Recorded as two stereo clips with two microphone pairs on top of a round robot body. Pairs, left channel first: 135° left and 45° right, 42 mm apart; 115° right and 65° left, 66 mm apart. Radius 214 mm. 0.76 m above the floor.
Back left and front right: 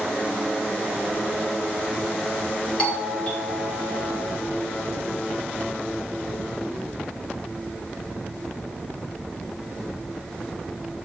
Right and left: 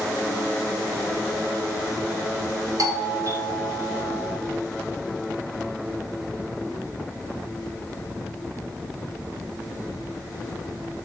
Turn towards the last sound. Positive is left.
turn(degrees=70)